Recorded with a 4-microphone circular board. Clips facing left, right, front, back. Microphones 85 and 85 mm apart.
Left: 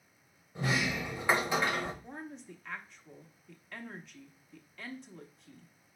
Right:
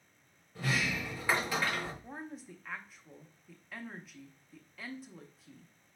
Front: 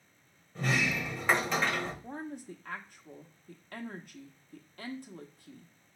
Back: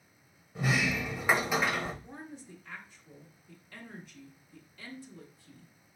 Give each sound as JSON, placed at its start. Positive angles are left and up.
{"t": 0.6, "sound": "a sliding door", "azimuth_deg": 115, "distance_m": 0.9}
{"t": 2.0, "sound": "a woman speaking", "azimuth_deg": -5, "distance_m": 0.8}